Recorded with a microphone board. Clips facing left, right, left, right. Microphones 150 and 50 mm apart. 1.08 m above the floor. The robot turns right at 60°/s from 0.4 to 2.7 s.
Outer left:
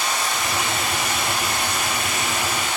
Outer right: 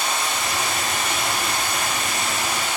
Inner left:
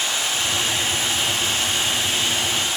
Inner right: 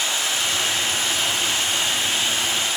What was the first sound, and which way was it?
Running water, 150° right.